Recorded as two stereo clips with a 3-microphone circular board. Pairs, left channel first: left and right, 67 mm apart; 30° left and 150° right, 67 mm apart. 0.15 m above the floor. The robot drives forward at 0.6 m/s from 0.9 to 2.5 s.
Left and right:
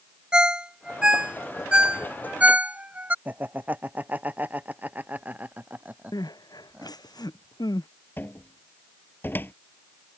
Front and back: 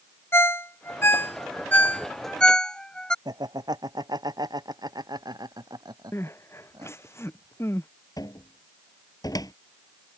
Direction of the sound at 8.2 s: 35° left.